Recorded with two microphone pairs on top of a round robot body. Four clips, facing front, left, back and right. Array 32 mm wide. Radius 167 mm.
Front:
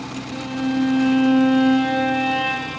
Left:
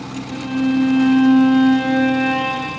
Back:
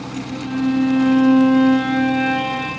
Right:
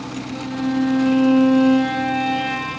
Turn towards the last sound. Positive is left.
turn(degrees=95)